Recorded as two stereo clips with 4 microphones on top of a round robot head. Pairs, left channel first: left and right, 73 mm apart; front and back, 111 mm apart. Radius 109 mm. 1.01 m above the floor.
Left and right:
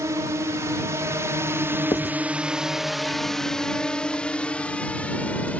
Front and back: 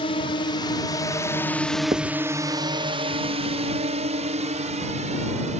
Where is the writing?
135° left.